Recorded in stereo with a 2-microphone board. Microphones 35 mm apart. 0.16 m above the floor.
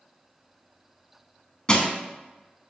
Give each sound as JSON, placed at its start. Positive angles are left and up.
{"t": 1.7, "sound": "crushing", "side_deg": 25, "distance_m": 0.5}